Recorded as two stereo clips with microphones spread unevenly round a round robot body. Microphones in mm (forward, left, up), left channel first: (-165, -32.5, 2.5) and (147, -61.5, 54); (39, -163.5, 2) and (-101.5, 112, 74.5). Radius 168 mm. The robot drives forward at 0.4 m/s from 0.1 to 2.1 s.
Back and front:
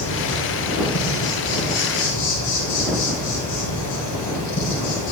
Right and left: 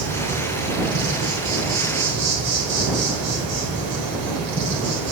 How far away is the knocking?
I don't hear knocking.